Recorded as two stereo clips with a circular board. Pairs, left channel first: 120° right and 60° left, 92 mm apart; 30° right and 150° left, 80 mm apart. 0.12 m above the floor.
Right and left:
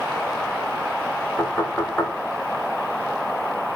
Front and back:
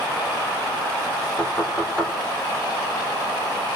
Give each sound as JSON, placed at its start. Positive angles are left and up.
{"t": 1.4, "sound": "knocking", "azimuth_deg": -75, "distance_m": 1.2}